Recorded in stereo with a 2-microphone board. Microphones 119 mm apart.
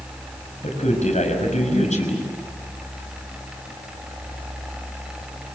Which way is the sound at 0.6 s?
80° left.